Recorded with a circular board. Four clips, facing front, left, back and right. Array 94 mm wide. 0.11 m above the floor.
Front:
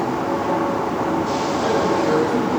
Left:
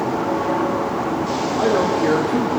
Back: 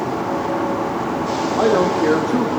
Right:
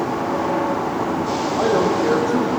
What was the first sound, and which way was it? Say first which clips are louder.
A man speaking: even, back 4 dB; 160° right.